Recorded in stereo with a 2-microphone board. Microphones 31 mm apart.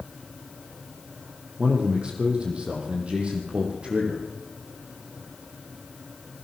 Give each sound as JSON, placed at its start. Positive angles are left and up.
{"t": 1.6, "sound": "a man speaking", "side_deg": -30, "distance_m": 5.0}